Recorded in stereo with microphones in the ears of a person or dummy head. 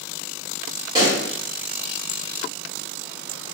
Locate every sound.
0.9 s a pop: 20° right (ahead or behind), 1.1 m